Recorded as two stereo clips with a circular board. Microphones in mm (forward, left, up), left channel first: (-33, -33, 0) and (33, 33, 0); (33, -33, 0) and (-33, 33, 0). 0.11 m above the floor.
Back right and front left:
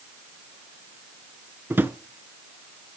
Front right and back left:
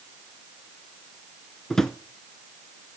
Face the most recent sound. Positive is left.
turn(degrees=35)